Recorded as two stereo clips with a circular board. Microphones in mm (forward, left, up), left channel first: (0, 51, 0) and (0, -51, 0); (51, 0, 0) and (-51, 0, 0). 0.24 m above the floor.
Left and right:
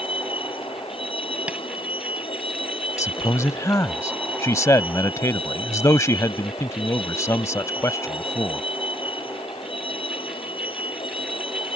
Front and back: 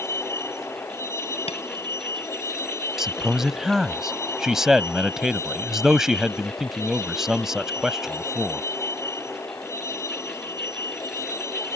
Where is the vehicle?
65° left; by 11.8 s 60° left.